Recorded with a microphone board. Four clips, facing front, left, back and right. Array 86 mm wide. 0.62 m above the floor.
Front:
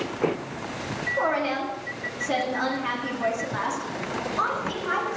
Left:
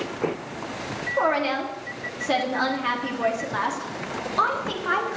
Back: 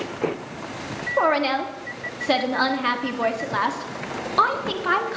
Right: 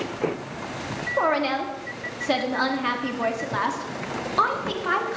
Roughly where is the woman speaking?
Behind.